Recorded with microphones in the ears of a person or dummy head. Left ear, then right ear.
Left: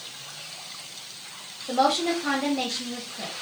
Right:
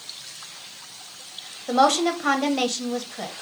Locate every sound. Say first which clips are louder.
1.7 s a woman speaking: right 3 dB; 50° right (ahead or behind), 1.0 m